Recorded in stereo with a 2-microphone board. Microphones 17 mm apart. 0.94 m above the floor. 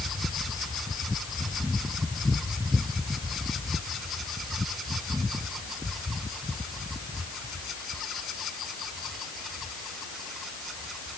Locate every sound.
Only background noise.